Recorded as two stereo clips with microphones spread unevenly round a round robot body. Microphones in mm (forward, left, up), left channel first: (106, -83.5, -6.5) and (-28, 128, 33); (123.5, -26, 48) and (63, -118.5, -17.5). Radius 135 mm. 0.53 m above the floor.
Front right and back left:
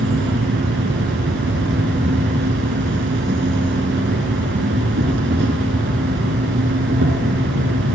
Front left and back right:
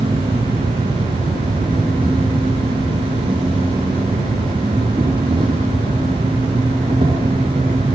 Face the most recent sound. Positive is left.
turn(degrees=175)